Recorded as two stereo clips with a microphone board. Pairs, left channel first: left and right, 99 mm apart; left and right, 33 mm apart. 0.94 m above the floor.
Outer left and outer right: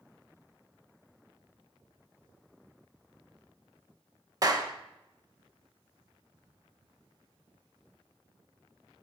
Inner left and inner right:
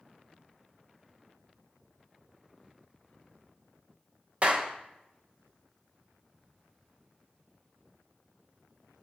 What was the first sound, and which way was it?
A clap, 40° right (ahead or behind).